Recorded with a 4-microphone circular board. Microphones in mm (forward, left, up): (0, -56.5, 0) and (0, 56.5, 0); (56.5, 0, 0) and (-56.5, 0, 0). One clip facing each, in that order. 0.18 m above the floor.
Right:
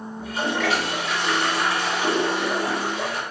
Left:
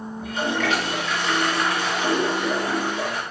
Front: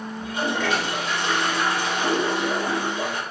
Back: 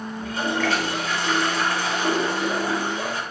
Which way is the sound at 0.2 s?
20° right.